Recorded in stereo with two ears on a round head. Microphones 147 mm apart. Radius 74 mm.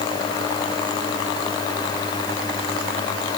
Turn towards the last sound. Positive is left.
No sound to turn to.